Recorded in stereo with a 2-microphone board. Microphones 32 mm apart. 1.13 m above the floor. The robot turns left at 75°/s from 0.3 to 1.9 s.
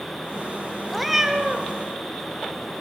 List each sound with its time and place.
0.9 s a cat meowing: 5° left, 1.2 m; by 1.7 s 60° right, 1.2 m